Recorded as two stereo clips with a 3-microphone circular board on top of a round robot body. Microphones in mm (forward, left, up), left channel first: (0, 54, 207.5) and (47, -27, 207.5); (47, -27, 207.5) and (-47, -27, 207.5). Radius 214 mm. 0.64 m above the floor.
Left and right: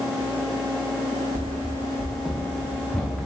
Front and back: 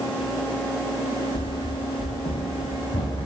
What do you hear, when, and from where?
1.4 s running footsteps: 10° right, 0.9 m; by 3.3 s 40° left, 3 m